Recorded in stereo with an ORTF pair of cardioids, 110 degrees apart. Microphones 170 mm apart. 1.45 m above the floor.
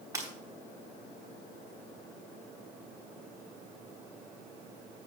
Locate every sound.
0.1 s breaking glass: 20° right, 4.5 m